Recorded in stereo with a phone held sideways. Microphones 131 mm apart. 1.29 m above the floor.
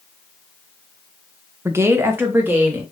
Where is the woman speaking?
20° right (ahead or behind), 0.7 m; by 2.8 s 15° right (ahead or behind), 2.5 m.